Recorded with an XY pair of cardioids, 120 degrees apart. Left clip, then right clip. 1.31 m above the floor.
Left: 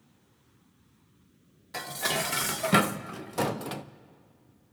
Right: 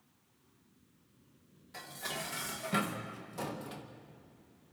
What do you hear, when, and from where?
1.7 s dishes clattering: 60° left, 0.7 m